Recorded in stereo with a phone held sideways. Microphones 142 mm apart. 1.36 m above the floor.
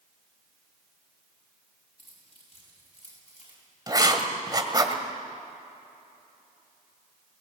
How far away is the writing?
About 1.9 m.